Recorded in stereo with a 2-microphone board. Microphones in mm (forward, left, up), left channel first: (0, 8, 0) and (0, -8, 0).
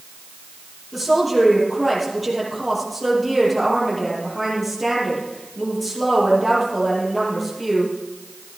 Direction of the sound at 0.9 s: 5° right (ahead or behind).